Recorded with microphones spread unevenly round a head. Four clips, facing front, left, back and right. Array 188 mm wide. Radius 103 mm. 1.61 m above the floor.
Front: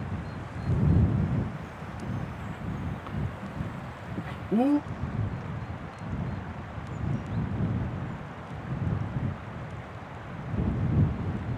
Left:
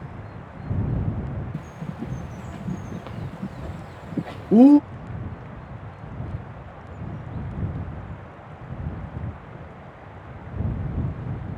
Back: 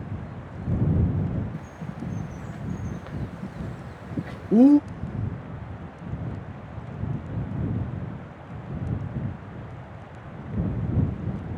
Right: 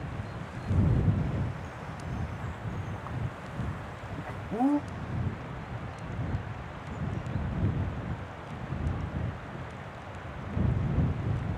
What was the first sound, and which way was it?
A bird, 120° left.